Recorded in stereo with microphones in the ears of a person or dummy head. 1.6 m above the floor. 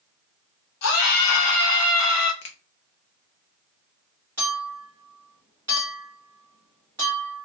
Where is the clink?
10° right (ahead or behind), 1.3 m.